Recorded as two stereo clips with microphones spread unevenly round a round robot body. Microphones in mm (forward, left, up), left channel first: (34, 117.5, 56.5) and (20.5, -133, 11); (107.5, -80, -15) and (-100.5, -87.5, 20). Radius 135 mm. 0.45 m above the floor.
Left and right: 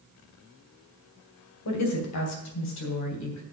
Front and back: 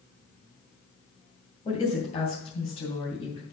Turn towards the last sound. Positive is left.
turn(degrees=70)